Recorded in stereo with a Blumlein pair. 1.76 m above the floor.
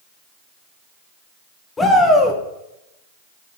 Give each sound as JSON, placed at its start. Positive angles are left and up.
{"t": 1.8, "sound": "a shout", "azimuth_deg": 15, "distance_m": 1.9}